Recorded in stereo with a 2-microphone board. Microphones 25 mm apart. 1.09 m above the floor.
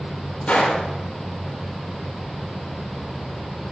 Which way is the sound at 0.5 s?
70° left (ahead or behind).